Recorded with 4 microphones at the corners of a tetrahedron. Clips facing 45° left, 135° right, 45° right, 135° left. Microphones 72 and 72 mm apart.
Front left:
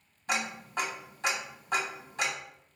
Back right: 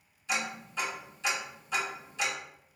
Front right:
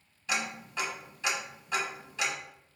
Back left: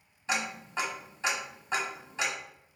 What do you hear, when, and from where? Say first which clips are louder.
0.3 s ticking: front left 1 dB, back left 1 dB; 80° left, 1.2 m